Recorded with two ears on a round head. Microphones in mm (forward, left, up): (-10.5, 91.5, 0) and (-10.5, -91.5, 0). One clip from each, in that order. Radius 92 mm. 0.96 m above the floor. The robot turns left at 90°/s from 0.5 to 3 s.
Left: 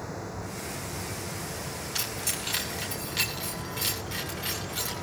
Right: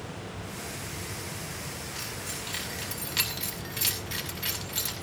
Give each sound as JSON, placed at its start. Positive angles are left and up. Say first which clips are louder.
{"t": 1.9, "sound": "keys jangling", "louder": "left 7 dB", "side_deg": 80, "distance_m": 5.5}